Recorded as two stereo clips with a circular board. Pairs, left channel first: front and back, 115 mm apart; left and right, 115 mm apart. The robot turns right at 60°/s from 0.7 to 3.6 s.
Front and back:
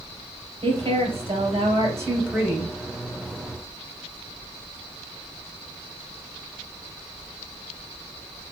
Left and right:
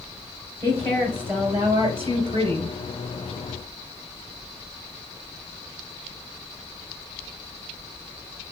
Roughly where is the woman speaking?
Behind.